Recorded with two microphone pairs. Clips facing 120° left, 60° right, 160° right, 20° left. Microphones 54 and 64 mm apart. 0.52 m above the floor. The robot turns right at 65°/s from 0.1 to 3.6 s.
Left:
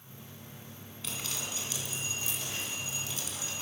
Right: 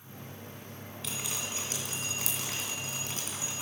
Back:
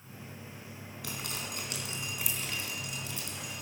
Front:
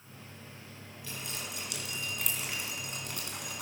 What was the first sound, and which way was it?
Dripping, 150° right.